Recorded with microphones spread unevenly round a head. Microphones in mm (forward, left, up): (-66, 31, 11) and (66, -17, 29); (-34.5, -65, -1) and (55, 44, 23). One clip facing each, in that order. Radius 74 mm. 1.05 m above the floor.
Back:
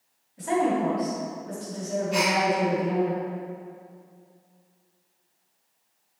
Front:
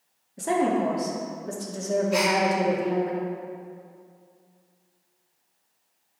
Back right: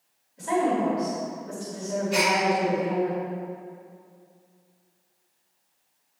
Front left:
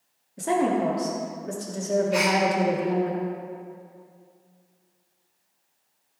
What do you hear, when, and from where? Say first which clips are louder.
0.4 s a woman speaking: even, front left 1 dB; 20° left, 2 m
2.1 s a gasp: back 1 dB, front left 1 dB; 105° right, 3.5 m